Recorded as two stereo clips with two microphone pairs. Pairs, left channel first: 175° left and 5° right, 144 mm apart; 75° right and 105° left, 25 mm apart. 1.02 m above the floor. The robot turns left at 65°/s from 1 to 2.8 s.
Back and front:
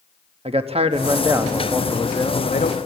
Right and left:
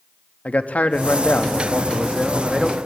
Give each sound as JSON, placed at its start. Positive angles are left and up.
{"t": 0.5, "sound": "a man speaking", "azimuth_deg": -50, "distance_m": 1.2}